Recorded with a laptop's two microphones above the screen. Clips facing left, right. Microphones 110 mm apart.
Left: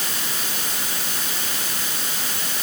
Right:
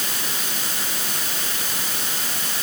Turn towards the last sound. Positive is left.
No sound to turn to.